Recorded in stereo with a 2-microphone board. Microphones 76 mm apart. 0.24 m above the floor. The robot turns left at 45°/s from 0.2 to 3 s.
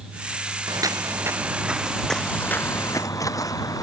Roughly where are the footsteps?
Right.